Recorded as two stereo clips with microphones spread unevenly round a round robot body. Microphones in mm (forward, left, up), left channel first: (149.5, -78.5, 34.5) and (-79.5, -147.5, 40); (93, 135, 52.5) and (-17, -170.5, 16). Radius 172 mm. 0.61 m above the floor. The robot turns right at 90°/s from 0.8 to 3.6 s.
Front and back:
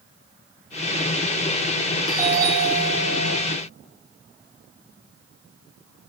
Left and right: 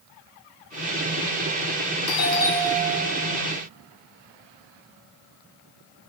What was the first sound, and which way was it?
A doorbell, 105° left.